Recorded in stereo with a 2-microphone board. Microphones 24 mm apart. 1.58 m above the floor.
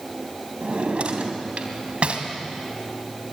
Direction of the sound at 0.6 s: 60° right (ahead or behind).